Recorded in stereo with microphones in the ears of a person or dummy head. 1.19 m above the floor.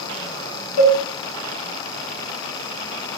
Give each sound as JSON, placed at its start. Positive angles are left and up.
{"t": 0.8, "sound": "a cowbell", "side_deg": 60, "distance_m": 1.1}